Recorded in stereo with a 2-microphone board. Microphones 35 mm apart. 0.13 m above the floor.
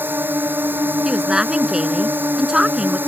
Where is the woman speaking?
20° right (ahead or behind).